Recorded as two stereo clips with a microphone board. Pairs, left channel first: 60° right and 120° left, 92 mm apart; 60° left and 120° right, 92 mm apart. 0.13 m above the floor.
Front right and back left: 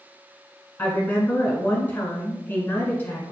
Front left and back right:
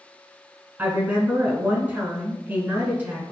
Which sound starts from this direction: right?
A woman speaking, at 0.8 s.